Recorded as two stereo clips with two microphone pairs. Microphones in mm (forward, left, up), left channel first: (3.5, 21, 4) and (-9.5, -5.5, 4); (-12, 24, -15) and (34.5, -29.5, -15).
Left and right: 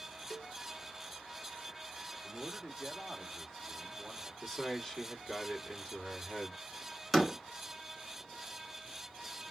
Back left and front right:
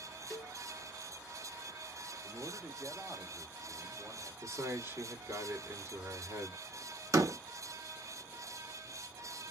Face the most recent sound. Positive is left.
turn(degrees=-20)